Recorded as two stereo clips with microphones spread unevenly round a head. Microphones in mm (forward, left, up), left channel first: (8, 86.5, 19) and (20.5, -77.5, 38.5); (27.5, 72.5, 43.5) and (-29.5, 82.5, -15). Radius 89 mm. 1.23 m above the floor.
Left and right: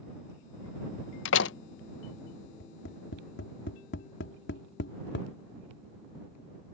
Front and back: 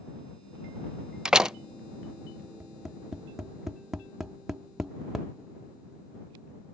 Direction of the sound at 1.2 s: 90° left.